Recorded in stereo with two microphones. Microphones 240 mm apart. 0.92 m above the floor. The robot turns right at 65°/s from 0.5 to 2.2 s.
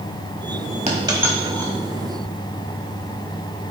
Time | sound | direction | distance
0.9 | a dropped coin | 30° right (ahead or behind) | 1.2 m